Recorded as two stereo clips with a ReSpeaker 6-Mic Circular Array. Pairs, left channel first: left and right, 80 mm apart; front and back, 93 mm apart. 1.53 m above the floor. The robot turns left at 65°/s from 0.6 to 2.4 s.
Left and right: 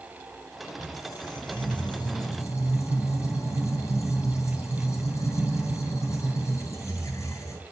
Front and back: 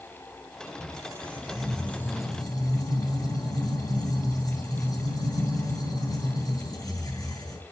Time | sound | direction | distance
0.8 | a squeak | 145° left | 3.5 m